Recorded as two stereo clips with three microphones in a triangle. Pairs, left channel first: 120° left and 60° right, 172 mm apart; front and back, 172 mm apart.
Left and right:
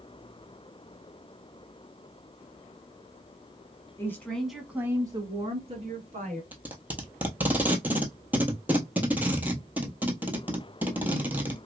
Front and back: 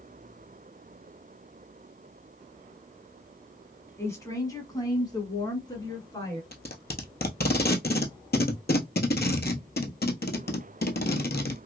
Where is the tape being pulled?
20° left, 0.9 m.